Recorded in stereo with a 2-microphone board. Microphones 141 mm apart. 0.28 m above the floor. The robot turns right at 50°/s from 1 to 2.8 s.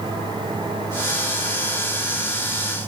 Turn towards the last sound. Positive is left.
No sound to turn to.